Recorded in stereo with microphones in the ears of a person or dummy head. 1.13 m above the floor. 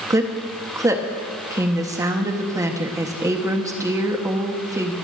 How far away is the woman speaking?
About 1.5 m.